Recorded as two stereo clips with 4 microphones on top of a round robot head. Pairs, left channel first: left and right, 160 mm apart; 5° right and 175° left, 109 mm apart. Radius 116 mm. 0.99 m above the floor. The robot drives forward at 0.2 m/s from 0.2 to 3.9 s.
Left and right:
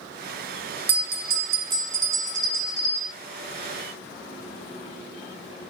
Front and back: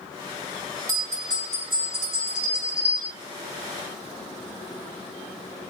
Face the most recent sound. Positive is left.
turn(degrees=-145)